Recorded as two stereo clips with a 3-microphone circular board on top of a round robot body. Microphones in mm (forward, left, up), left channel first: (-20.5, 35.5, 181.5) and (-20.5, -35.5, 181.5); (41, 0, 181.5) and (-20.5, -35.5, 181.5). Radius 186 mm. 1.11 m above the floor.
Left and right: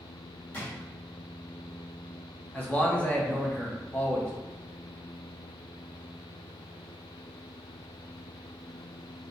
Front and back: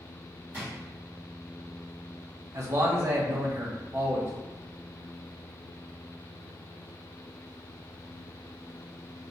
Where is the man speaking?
160° left, 1.3 m.